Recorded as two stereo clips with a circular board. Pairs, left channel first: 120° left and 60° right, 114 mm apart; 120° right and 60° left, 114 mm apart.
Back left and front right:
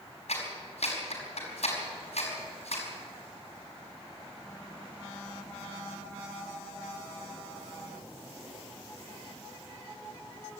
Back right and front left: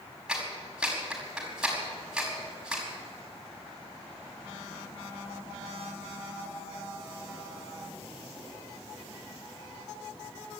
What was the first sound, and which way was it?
A clap, 140° left.